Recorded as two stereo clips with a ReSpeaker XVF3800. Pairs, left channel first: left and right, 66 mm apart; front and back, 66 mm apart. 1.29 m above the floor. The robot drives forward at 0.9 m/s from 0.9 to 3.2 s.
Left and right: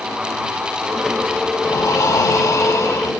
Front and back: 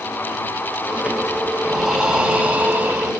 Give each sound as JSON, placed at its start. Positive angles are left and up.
{"t": 1.6, "sound": "breathing", "azimuth_deg": 95, "distance_m": 2.5}